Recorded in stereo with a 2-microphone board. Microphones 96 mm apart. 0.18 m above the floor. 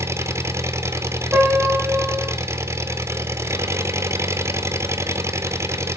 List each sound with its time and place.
0.0 s an engine running: 30° right (ahead or behind), 1.1 m
1.3 s a piano: 15° right (ahead or behind), 9.5 m